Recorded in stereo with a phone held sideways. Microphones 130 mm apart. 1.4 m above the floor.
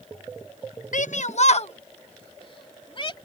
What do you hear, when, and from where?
0.9 s a shout: 75° left (ahead or behind); by 3.1 s 40° left (ahead or behind)